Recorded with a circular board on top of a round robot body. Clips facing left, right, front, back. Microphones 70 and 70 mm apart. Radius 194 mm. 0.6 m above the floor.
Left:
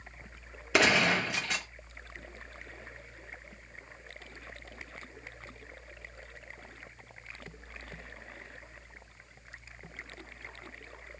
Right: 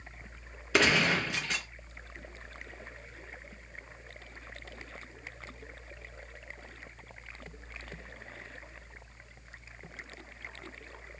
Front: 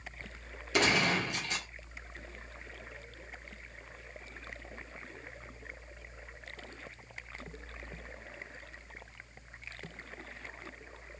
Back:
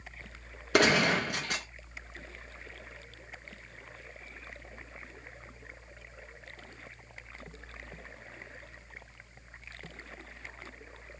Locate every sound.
0.7 s a gunshot: 175° left, 2 m